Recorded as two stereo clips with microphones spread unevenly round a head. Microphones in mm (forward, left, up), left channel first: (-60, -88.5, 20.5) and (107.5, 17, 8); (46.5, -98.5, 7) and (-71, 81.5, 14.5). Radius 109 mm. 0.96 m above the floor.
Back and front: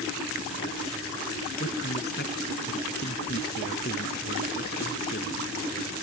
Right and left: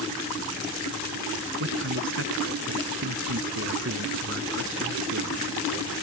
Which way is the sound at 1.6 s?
160° left.